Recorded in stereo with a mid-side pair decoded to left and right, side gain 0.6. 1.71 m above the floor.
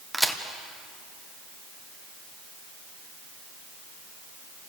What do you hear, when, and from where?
0.1 s a crack: straight ahead, 1.8 m